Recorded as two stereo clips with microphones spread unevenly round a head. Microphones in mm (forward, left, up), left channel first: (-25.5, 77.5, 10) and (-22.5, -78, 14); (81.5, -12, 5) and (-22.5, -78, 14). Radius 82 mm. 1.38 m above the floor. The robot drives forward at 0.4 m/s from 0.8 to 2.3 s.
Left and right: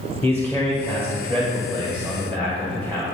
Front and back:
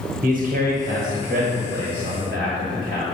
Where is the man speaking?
165° left, 1.1 m; by 3.0 s 170° left, 1.7 m.